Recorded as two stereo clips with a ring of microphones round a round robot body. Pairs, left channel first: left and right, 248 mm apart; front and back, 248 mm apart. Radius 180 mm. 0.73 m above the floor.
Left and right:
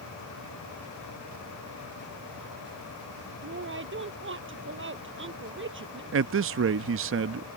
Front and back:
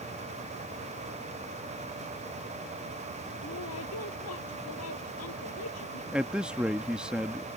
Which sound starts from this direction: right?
A man speaking, at 6.1 s.